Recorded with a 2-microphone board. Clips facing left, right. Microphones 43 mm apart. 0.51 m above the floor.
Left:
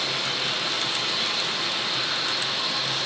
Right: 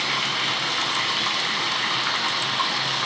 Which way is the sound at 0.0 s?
55° right (ahead or behind).